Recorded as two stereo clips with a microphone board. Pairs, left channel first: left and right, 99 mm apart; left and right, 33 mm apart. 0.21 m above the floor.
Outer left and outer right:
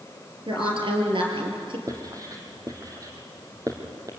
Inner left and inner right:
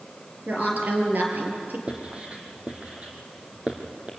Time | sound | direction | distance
0.5 | a woman speaking | 60° right (ahead or behind) | 5 m
1.9 | writing | 35° right (ahead or behind) | 3 m